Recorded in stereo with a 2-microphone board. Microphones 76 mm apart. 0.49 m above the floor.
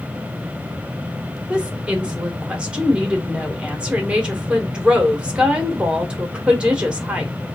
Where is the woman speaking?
15° right (ahead or behind), 1.2 m.